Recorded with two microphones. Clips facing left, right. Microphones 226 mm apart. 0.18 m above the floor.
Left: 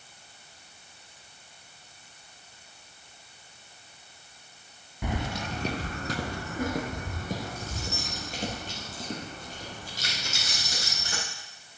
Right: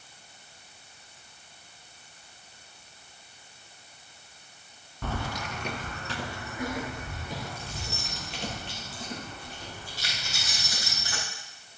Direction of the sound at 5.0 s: 15° left (ahead or behind).